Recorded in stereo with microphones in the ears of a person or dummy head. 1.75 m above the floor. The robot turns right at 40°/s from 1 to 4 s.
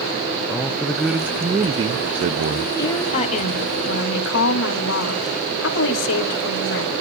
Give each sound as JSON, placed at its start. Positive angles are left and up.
{"t": 0.5, "sound": "a man speaking", "azimuth_deg": 180, "distance_m": 0.6}
{"t": 2.8, "sound": "a woman speaking", "azimuth_deg": 15, "distance_m": 3.5}